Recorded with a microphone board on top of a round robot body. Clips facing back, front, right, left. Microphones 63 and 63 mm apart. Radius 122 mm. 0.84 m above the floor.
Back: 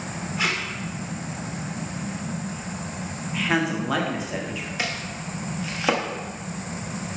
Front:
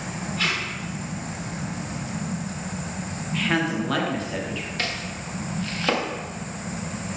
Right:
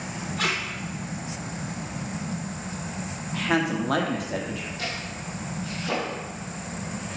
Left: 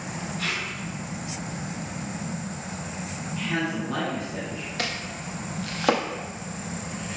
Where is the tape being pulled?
110° right, 1.4 m.